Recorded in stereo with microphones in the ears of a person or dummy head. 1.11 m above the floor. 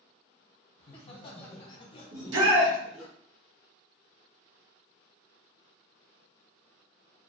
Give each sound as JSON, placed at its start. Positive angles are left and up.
{"t": 0.8, "sound": "laughter", "side_deg": 30, "distance_m": 1.0}
{"t": 2.1, "sound": "a shout", "side_deg": -70, "distance_m": 1.2}